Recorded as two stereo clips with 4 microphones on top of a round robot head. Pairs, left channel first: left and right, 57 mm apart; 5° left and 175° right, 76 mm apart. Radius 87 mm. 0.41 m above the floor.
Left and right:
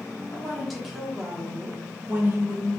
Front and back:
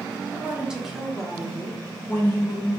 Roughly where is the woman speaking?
Behind left.